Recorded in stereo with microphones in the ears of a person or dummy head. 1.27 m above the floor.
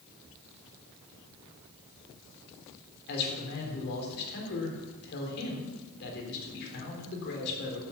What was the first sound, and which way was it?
A man speaking, 55° left (ahead or behind).